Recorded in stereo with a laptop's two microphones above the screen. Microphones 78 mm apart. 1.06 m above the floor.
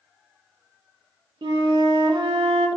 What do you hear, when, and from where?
1.4 s a flute: 70° right (ahead or behind), 0.5 m